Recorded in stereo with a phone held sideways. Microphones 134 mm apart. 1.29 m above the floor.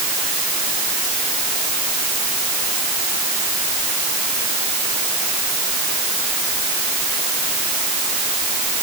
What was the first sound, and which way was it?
Only background noise.